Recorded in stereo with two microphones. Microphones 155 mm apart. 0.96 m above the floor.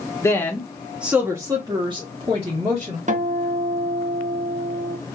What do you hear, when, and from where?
0.2 s a woman speaking: 20° left (ahead or behind), 0.8 m; by 3.0 s 45° right (ahead or behind), 1.4 m
3.1 s a guitar: 55° right (ahead or behind), 0.6 m